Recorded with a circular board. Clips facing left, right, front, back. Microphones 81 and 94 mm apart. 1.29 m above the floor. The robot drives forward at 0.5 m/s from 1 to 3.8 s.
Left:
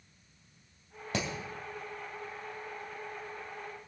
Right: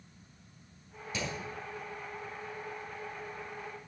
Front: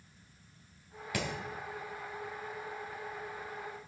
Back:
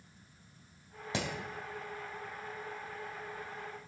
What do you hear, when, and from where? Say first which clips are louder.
1.1 s hammering: left 3 dB, even; 115° left, 3 m